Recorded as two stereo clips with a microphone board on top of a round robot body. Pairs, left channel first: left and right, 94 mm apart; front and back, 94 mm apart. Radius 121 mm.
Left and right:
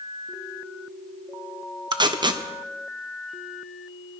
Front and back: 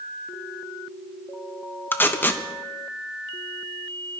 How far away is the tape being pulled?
About 1.2 m.